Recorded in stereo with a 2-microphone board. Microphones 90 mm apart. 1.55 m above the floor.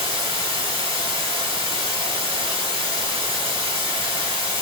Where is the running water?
85° right, 4 m.